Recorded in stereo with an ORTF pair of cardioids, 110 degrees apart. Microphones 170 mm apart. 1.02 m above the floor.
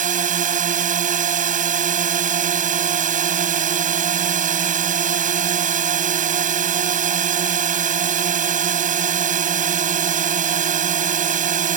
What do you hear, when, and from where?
0.0 s a drone: 45° right